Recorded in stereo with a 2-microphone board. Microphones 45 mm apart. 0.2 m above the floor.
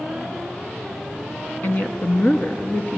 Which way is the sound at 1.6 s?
35° left (ahead or behind).